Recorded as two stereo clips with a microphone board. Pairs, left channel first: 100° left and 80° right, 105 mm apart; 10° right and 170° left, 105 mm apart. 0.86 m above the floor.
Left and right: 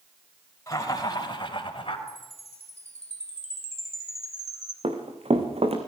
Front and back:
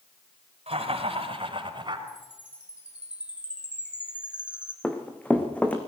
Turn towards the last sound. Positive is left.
turn(degrees=-90)